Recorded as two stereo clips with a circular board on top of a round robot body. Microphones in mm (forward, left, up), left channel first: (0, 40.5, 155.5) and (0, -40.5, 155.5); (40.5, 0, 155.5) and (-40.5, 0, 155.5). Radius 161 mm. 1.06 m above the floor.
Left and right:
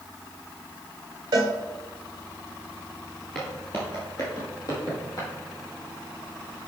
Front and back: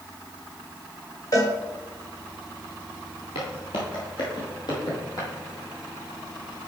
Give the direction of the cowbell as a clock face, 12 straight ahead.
2 o'clock.